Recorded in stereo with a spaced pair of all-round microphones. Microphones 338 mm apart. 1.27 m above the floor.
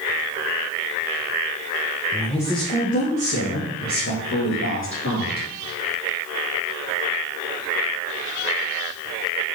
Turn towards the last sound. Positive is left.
turn(degrees=55)  # may be behind; listen again after turning